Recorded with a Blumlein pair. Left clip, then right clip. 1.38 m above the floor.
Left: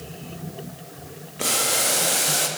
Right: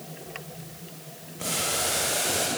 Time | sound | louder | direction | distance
1.4 | boiling | left 5 dB | 25° left | 2.0 m